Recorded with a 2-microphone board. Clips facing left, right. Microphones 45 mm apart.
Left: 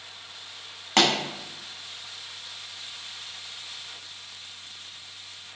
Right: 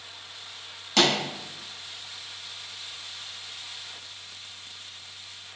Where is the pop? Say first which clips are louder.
Left 1 dB; 50° left (ahead or behind), 0.8 m.